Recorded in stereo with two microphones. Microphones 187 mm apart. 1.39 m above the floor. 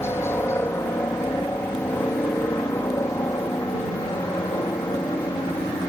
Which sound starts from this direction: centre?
A helicopter, at 0.0 s.